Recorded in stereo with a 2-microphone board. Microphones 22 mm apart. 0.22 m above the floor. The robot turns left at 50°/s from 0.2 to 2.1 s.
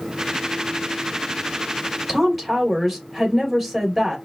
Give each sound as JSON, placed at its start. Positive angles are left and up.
{"t": 2.1, "sound": "a woman speaking", "side_deg": -5, "distance_m": 3.0}